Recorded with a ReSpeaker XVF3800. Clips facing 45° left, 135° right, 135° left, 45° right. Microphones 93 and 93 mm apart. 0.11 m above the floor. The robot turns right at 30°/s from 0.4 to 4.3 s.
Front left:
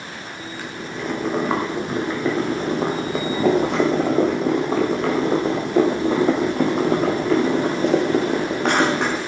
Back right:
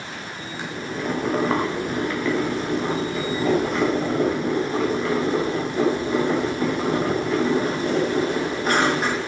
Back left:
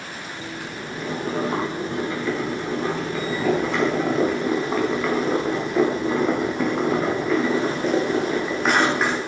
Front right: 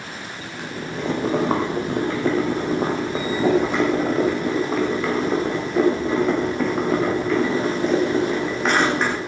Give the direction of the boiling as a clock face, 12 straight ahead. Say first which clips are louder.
Back right 2 dB, front right 6 dB; 2 o'clock.